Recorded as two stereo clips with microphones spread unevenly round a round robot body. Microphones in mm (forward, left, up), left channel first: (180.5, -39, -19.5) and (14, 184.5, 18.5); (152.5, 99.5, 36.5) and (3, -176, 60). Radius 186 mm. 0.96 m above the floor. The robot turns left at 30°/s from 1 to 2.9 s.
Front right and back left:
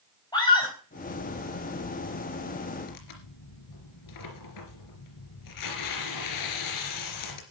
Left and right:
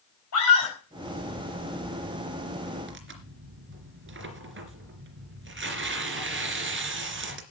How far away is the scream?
About 4.5 m.